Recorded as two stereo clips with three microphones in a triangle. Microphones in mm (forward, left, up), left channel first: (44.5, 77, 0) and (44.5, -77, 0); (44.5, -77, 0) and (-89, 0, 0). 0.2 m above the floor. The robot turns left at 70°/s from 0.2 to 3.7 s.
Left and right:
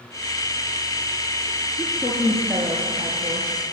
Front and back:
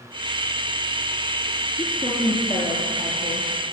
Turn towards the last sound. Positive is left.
turn(degrees=-80)